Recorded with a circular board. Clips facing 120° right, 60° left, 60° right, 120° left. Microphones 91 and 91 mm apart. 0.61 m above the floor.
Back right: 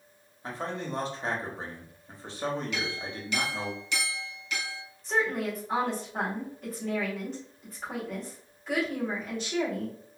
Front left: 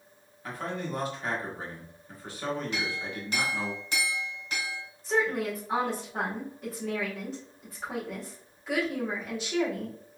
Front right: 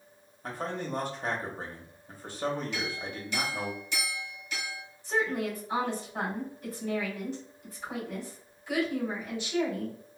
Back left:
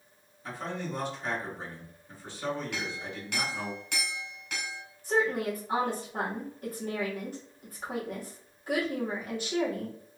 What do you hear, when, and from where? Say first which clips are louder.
0.4 s a man speaking: even, front right 2 dB; 70° right, 1.3 m
2.7 s a clink: front left 1 dB, front right 1 dB; 110° left, 1.7 m
5.0 s a woman speaking: front left 1 dB, back left 2 dB; 150° left, 1.9 m